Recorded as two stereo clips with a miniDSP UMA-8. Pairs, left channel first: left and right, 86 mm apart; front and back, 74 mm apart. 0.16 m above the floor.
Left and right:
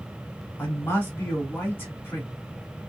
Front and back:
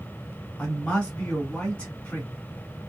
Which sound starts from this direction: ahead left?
A man speaking, at 0.6 s.